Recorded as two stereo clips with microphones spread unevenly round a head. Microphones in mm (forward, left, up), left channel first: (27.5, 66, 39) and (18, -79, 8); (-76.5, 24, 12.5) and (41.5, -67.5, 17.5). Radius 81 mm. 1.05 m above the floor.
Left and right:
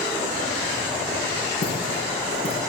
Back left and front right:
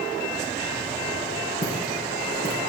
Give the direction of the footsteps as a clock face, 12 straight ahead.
8 o'clock.